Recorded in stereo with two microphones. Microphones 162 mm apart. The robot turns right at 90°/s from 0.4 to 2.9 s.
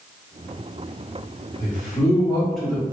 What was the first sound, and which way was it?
A man speaking, 90° left.